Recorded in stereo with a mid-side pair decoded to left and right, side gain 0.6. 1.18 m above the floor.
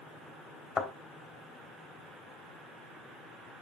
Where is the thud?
20° left, 3 m.